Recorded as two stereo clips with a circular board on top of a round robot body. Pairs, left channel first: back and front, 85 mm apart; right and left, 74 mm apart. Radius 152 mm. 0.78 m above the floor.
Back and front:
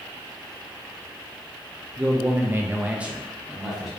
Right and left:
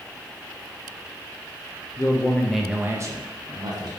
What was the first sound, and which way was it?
A man speaking, 65° right.